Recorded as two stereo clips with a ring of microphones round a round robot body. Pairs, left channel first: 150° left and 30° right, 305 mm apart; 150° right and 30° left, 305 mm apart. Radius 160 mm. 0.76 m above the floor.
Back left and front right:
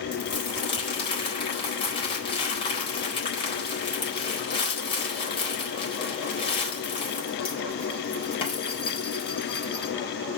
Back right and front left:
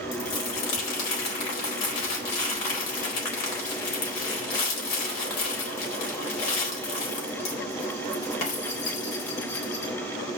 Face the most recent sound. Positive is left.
turn(degrees=-135)